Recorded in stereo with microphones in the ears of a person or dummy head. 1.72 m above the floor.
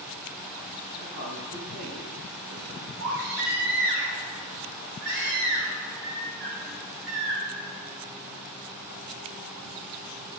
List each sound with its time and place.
1.0 s a man speaking: 80° right, 4 m; by 2.9 s 75° right (ahead or behind), 2.5 m
3.0 s a baby crying: 60° right (ahead or behind), 1.5 m